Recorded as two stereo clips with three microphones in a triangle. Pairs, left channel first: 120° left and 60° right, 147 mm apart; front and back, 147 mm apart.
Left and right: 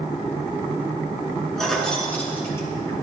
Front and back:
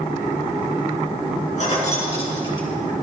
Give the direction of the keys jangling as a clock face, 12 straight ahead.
11 o'clock.